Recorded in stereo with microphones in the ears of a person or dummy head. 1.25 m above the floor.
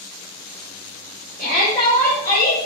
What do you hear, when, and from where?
1.4 s a shout: 20° right (ahead or behind), 1.3 m; by 2.5 s 40° left (ahead or behind), 1.1 m